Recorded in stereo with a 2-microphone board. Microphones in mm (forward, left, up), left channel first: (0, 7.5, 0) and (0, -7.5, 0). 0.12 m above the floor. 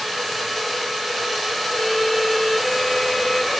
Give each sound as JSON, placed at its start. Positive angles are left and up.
{"t": 1.7, "sound": "a violin", "side_deg": 15, "distance_m": 0.9}